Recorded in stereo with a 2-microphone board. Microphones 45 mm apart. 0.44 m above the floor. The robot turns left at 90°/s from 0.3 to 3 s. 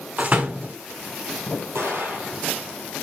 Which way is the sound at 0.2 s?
30° right (ahead or behind).